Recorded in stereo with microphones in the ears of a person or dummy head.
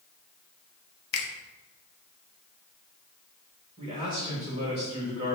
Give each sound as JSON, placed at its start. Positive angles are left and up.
{"t": 1.1, "sound": "a finger snap", "side_deg": 60, "distance_m": 0.7}
{"t": 3.8, "sound": "a man speaking", "side_deg": -30, "distance_m": 1.2}